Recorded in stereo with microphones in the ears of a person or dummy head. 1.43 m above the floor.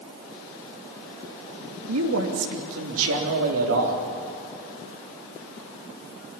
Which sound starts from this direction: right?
A man speaking, at 1.9 s.